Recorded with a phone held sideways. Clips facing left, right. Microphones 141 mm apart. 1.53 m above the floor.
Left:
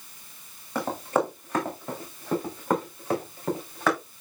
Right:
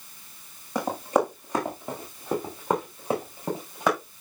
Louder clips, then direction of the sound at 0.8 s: Right 2 dB; 15° right (ahead or behind).